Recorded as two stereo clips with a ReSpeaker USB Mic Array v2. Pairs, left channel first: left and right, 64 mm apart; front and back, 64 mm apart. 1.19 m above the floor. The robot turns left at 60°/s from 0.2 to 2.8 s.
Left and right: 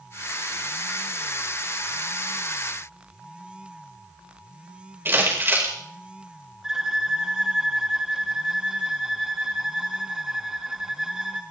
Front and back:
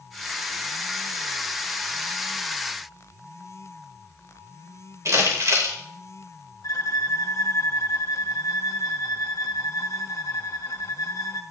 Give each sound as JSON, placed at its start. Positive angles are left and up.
{"t": 5.0, "sound": "crumpling", "azimuth_deg": -145, "distance_m": 5.5}
{"t": 6.6, "sound": "a violin", "azimuth_deg": -10, "distance_m": 2.5}